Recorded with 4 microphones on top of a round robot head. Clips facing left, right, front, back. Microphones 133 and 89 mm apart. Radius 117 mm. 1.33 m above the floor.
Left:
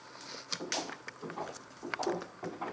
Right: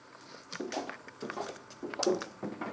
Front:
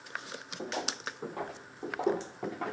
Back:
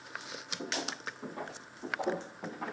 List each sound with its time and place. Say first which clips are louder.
0.6 s footsteps: right 3 dB, front 2 dB; 65° right, 2.5 m; by 2.7 s 60° right, 1.6 m